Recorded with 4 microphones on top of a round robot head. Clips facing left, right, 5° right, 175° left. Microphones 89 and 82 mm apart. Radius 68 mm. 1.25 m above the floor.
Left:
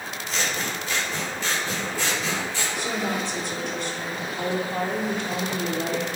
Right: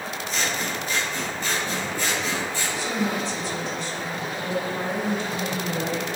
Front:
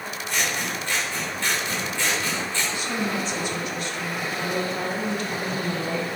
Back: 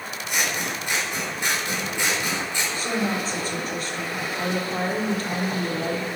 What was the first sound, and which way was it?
Scissors, 100° left.